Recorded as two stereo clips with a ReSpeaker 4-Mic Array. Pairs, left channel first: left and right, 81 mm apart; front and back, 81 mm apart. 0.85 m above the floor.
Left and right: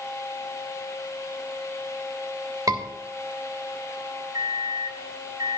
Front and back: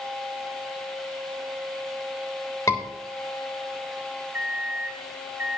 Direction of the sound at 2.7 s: 50° right.